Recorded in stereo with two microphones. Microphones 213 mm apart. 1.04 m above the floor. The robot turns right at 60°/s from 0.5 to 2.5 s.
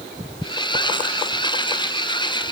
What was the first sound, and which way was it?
Only background noise.